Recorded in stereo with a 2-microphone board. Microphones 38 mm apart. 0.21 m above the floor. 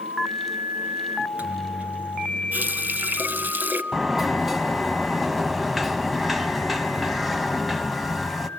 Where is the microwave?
35° right (ahead or behind), 2 m.